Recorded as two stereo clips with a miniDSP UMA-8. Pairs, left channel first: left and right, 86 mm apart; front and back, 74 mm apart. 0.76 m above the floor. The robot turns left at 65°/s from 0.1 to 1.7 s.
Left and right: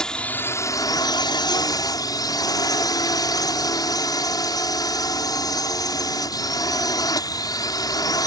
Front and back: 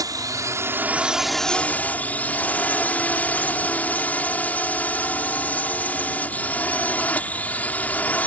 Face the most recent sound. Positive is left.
turn(degrees=65)